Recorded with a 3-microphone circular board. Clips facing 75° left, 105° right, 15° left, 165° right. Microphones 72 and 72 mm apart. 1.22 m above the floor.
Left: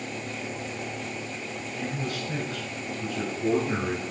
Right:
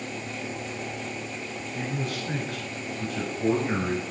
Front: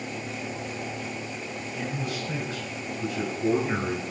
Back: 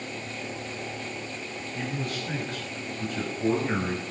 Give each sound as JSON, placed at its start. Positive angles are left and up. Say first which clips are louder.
{"t": 1.7, "sound": "a man speaking", "louder": "right 1 dB, even", "azimuth_deg": -120, "distance_m": 6.5}